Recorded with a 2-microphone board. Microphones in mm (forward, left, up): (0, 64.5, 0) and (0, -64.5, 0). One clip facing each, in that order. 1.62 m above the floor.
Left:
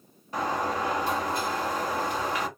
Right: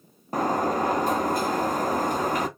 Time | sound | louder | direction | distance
0.3 | a sliding door | right 4 dB | 45° right (ahead or behind) | 0.6 m